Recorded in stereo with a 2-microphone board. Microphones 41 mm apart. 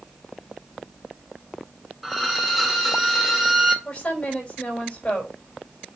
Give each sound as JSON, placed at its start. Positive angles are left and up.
{"t": 2.0, "sound": "a violin", "side_deg": 0, "distance_m": 1.6}
{"t": 3.9, "sound": "a woman speaking", "side_deg": 35, "distance_m": 4.0}